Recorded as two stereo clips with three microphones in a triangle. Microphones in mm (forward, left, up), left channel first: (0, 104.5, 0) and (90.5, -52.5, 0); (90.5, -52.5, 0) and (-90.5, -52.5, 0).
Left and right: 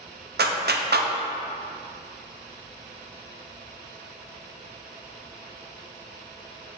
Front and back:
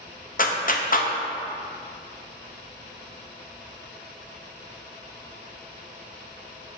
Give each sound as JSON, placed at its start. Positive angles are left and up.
{"t": 0.4, "sound": "a clap", "azimuth_deg": -40, "distance_m": 0.7}